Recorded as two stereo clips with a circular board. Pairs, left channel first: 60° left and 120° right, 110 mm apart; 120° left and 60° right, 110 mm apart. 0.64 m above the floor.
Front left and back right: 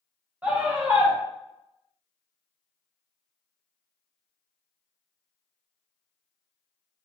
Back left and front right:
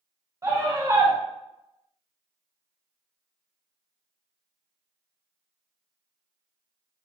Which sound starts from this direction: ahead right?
A scream, at 0.4 s.